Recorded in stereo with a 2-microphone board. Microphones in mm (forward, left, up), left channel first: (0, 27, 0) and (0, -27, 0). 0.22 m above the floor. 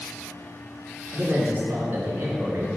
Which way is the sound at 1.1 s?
35° right (ahead or behind).